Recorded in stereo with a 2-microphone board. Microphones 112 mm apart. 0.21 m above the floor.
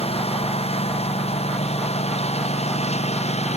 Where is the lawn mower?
60° left (ahead or behind); by 3.6 s 70° left (ahead or behind).